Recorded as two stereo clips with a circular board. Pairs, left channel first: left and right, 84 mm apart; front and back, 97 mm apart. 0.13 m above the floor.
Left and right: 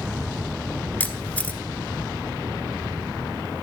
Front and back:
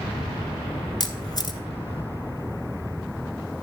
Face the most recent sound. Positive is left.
turn(degrees=25)